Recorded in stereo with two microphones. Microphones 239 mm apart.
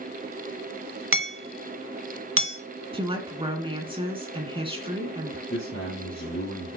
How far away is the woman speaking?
About 2.5 m.